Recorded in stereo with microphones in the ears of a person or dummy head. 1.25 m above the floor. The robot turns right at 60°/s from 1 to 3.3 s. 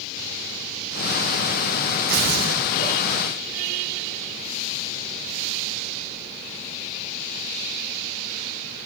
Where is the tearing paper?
140° right, 5.5 m; by 2.6 s 105° right, 5.5 m.